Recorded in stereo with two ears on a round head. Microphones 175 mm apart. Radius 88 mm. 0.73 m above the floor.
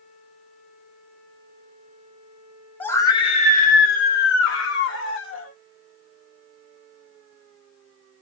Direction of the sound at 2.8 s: 10° left (ahead or behind).